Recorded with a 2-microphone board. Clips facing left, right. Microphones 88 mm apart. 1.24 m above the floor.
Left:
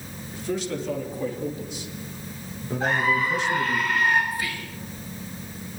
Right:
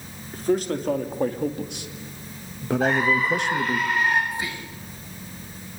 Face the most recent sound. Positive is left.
turn(degrees=-20)  # may be behind; listen again after turning